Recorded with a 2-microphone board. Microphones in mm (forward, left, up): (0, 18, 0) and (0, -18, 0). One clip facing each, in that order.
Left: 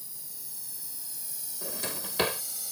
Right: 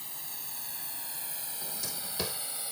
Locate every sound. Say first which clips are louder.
0.0 s a drone: right 7 dB; 60° right (ahead or behind); by 2.7 s 30° right (ahead or behind)
1.6 s a drawer: left 6 dB; 50° left (ahead or behind)